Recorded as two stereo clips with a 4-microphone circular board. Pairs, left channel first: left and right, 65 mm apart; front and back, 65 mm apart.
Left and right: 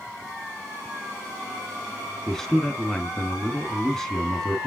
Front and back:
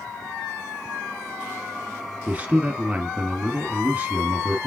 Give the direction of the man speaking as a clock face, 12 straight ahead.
7 o'clock.